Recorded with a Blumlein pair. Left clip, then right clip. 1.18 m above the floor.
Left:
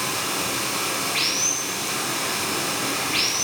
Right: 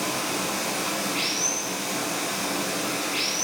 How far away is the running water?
About 5.5 m.